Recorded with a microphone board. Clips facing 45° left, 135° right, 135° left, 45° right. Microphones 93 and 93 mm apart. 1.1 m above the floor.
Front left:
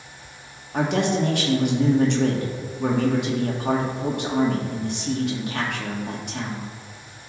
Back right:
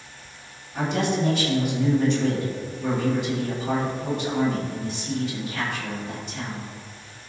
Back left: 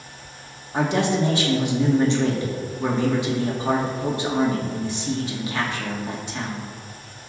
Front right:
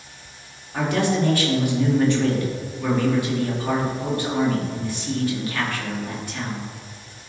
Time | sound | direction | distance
0.7 | a man speaking | 65° left | 2 m